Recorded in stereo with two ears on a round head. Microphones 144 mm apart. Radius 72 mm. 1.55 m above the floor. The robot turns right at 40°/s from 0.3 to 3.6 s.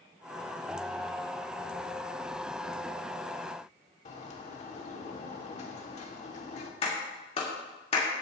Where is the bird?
40° left (ahead or behind), 1.4 m.